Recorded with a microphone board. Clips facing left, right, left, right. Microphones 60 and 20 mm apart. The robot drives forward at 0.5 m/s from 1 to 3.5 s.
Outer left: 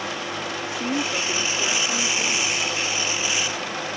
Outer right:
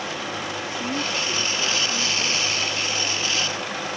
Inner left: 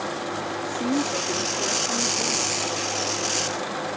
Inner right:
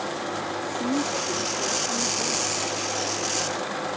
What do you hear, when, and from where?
0.6 s a woman speaking: 20° left (ahead or behind); by 2.6 s 15° left (ahead or behind)